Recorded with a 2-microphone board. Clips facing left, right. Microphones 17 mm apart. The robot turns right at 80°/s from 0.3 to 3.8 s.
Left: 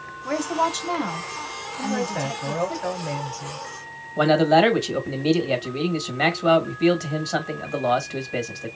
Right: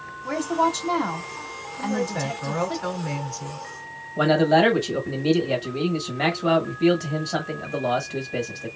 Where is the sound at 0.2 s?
20° left (ahead or behind), 1.3 m; by 2.8 s 20° right (ahead or behind), 1.3 m.